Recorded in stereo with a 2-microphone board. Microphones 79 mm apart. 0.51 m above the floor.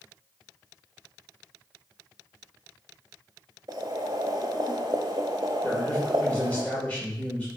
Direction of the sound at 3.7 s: 50° right (ahead or behind).